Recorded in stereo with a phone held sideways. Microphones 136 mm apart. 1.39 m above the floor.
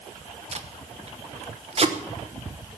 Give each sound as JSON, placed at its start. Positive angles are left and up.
{"t": 0.5, "sound": "tape being pulled", "side_deg": -50, "distance_m": 1.0}